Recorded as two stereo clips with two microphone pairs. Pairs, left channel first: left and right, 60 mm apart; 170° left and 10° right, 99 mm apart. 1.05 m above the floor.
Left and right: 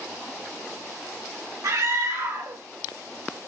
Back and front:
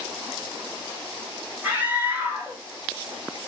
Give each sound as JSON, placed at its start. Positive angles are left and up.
{"t": 1.6, "sound": "a scream", "azimuth_deg": -80, "distance_m": 1.7}